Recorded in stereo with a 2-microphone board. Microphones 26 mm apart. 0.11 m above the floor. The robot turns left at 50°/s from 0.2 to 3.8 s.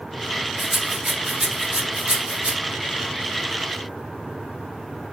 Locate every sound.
0.6 s a rattle: 15° right (ahead or behind), 1.1 m; by 2.5 s 35° right (ahead or behind), 1.1 m